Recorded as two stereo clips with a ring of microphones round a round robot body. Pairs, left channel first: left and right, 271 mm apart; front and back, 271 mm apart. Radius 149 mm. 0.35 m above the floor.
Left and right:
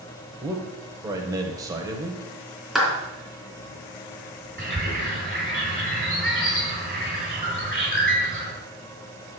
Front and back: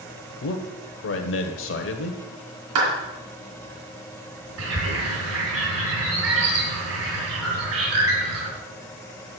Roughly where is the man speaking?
Ahead.